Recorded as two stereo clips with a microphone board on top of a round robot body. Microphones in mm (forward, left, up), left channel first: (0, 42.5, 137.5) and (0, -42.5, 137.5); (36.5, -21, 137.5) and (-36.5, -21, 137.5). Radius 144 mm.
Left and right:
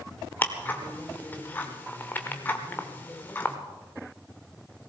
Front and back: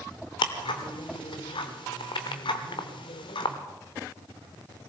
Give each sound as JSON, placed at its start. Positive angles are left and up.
{"t": 0.4, "sound": "ticking", "azimuth_deg": 20, "distance_m": 0.8}